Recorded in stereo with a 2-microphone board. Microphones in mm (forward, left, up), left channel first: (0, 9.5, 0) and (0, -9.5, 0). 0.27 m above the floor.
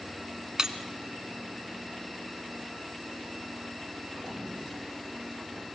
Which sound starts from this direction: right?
Breaking glass, at 0.6 s.